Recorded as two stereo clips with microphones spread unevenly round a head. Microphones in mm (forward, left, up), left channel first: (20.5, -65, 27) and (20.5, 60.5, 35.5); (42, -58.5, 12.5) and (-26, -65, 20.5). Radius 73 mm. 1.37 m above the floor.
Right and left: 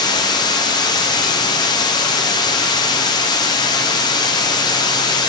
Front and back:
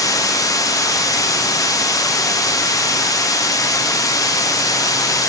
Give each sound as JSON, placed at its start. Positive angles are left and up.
{"t": 0.0, "sound": "running water", "azimuth_deg": -30, "distance_m": 0.7}